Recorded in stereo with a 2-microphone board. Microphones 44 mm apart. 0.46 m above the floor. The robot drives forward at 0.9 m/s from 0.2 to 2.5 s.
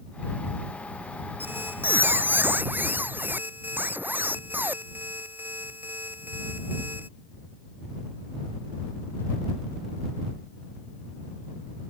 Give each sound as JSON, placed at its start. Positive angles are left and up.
{"t": 1.4, "sound": "a squeak", "side_deg": -50}